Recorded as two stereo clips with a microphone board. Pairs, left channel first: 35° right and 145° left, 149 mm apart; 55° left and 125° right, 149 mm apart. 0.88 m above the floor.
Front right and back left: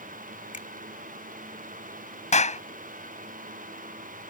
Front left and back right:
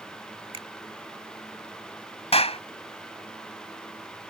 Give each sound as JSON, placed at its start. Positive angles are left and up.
{"t": 0.5, "sound": "a finger snap", "azimuth_deg": -70}
{"t": 2.3, "sound": "a clap", "azimuth_deg": 5}